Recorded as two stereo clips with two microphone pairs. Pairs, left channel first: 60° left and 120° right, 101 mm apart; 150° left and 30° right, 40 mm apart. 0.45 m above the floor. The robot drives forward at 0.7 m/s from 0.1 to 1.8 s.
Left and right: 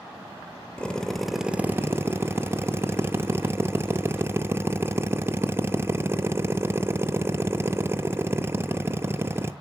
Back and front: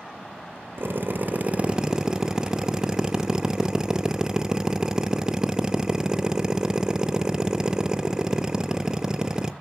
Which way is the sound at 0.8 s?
15° right.